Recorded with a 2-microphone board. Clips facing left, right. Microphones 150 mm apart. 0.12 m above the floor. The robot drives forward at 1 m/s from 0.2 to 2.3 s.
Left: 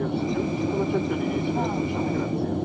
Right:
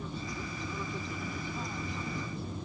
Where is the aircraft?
70° left (ahead or behind); by 2.6 s 65° left (ahead or behind).